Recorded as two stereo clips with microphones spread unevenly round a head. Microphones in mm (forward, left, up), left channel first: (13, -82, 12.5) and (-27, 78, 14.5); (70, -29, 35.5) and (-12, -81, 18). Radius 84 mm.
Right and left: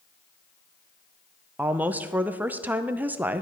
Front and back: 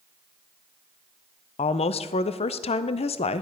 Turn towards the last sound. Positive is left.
turn(degrees=25)